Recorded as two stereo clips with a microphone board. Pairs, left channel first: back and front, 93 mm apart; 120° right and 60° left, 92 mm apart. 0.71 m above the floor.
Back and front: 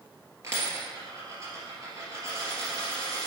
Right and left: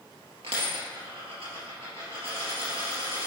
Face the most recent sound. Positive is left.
turn(degrees=55)